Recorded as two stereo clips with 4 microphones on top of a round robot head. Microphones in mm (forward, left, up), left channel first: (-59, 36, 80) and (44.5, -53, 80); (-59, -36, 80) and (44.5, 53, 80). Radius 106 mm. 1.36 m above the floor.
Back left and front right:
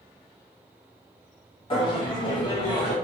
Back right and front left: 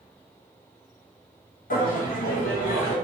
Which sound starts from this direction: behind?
Laughter, at 1.7 s.